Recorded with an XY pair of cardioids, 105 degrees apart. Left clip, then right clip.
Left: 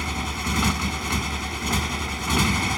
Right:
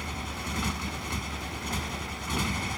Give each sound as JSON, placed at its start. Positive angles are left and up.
{"t": 0.0, "sound": "a motorcycle", "azimuth_deg": 55}